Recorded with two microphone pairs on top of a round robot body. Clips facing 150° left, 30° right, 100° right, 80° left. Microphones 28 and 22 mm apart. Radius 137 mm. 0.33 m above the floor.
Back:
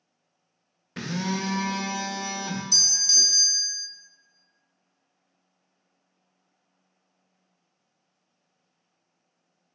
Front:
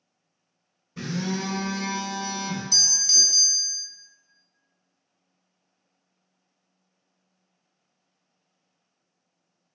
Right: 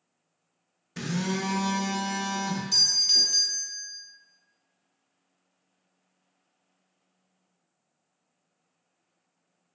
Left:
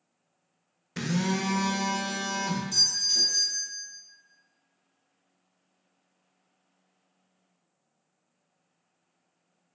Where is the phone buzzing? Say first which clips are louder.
Even, left 1 dB; 140° left, 0.6 m.